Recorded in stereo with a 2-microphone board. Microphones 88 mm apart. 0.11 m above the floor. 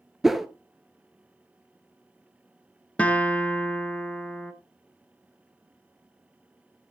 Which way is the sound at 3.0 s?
15° left (ahead or behind).